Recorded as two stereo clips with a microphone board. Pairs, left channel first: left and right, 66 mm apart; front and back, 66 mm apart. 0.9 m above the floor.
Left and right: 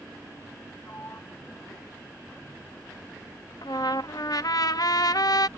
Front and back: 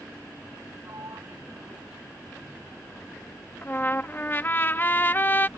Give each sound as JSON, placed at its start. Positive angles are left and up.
{"t": 0.8, "sound": "a sliding door", "azimuth_deg": 145}
{"t": 3.6, "sound": "a trumpet", "azimuth_deg": 60}